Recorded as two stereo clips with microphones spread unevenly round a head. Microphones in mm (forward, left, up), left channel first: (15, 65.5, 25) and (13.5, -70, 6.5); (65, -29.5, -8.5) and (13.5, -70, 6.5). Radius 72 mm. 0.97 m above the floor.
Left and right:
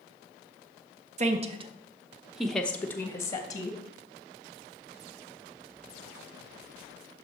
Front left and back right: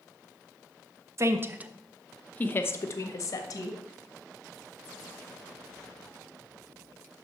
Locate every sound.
1.2 s a woman speaking: 95° right, 0.8 m; by 3.8 s 25° left, 1.5 m